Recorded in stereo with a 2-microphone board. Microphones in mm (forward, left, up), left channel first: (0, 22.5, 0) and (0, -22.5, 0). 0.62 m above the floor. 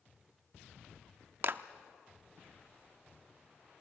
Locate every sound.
1.4 s a clap: 55° right (ahead or behind), 0.7 m